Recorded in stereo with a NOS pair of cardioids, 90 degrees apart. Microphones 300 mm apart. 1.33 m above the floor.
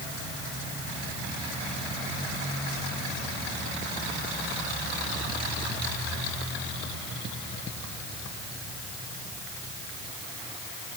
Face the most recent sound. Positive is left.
No sound to turn to.